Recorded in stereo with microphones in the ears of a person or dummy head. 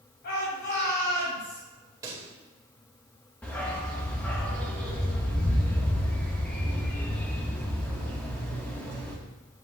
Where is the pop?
20° right (ahead or behind), 1.7 m.